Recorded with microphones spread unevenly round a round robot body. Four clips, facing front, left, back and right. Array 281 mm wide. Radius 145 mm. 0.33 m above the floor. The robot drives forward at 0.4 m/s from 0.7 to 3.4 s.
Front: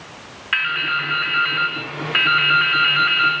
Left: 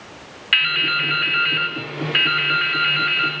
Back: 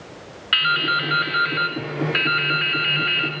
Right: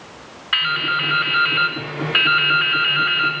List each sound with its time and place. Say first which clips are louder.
0.5 s dripping: right 2 dB, back 2 dB; 140° left, 1.4 m; by 3.3 s 160° left, 2 m